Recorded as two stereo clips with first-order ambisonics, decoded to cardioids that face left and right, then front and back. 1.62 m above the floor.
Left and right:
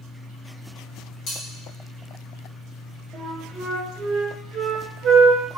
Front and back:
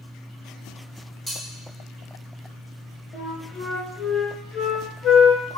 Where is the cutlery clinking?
80° left, 1.2 m.